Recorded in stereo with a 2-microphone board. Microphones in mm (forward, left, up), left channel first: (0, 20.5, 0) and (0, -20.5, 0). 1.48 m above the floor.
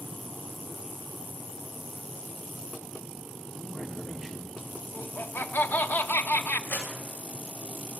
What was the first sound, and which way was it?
A man speaking, 10° right (ahead or behind).